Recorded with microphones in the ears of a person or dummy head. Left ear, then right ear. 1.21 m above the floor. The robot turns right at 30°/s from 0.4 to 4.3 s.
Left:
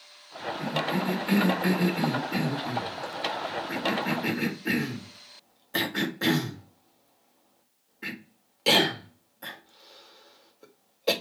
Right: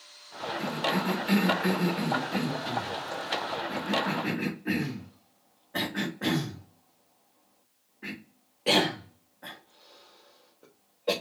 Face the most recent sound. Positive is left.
turn(degrees=85)